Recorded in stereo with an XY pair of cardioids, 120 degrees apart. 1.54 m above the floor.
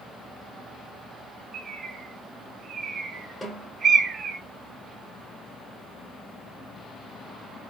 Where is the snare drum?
5° left, 3 m.